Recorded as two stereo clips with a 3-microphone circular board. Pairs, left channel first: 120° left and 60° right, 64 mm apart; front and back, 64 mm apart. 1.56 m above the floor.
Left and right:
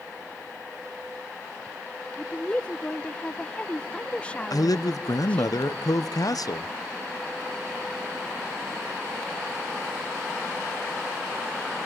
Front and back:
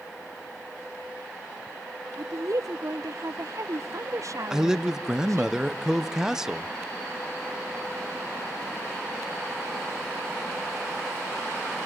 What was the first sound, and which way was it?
A woman speaking, 170° right.